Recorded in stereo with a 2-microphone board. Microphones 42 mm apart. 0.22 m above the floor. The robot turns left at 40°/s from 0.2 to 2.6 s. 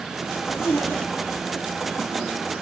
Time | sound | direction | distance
0.3 | a zipper | 80° left | 4.5 m